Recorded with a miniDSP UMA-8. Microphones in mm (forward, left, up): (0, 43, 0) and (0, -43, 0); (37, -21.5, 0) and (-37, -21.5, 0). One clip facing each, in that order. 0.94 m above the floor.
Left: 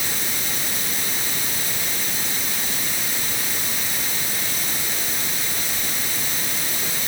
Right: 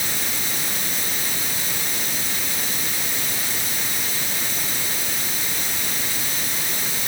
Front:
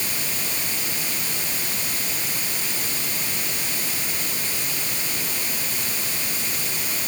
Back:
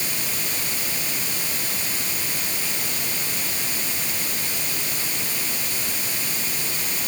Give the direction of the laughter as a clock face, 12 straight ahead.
I don't hear laughter.